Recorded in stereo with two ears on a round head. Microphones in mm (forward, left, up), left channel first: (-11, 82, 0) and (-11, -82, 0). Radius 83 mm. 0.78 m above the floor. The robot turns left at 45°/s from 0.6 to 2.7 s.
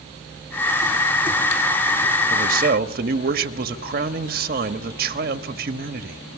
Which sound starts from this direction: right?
A man speaking, at 2.3 s.